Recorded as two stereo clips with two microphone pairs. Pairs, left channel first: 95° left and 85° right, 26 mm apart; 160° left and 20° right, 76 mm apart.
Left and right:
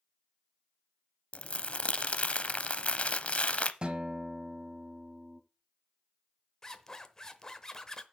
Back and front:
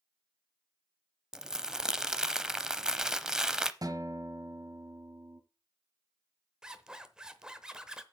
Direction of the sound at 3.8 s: 40° right.